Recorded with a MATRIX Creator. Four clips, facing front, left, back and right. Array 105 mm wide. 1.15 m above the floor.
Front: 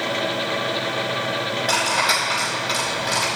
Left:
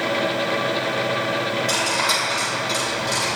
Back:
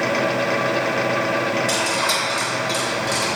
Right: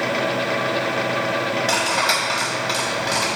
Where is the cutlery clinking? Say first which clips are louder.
Right 2 dB, even; 50° right, 4 m.